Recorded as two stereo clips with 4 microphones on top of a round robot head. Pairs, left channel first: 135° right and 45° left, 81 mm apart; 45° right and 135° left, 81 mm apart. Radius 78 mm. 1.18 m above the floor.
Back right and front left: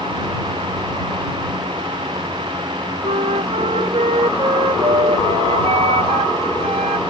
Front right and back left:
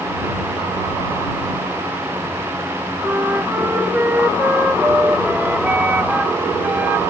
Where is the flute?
65° left.